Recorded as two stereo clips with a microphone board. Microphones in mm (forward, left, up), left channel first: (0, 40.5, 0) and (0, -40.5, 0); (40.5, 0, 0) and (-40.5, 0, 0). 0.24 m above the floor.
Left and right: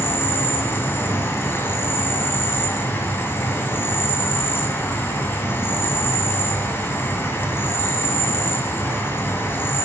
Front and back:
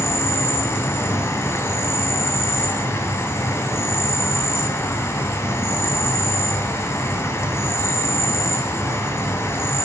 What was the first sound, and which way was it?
An insect, 40° left.